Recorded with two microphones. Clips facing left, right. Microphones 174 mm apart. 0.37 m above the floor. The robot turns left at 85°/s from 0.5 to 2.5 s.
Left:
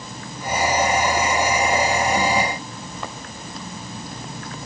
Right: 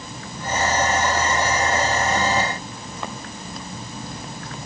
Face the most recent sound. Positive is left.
No sound to turn to.